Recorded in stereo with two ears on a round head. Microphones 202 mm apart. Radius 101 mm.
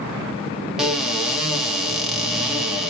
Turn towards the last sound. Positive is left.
turn(degrees=0)  # may be behind; listen again after turning